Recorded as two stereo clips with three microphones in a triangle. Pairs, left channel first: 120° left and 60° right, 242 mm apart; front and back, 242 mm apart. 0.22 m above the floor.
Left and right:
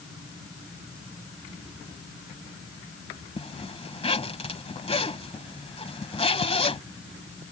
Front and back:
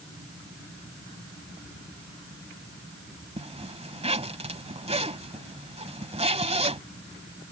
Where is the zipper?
150° left.